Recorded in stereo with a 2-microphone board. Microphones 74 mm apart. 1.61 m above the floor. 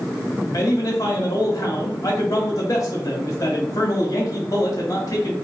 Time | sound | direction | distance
0.5 | a man speaking | 50° left (ahead or behind) | 1.6 m